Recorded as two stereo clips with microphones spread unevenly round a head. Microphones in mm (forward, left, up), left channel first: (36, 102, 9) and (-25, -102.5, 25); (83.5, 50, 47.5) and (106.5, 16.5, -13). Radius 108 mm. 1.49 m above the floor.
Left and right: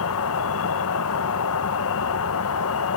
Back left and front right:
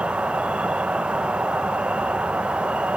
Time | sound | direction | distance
0.0 | an insect | 75° left | ?